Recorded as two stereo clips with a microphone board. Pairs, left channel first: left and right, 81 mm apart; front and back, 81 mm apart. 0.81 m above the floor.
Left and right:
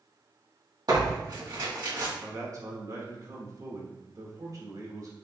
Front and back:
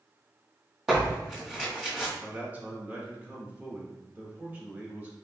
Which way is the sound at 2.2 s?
115° right.